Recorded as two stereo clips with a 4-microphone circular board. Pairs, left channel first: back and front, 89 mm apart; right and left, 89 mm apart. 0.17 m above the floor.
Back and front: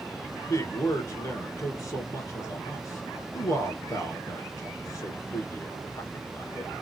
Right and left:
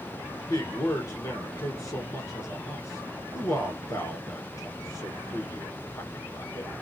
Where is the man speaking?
135° right, 2.5 m.